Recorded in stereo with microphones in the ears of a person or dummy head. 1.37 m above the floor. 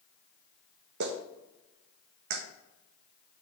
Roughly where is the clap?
Right.